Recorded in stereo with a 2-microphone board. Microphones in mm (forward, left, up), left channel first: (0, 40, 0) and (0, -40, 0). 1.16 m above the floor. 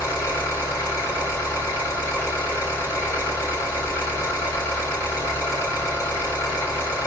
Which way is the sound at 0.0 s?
35° left (ahead or behind).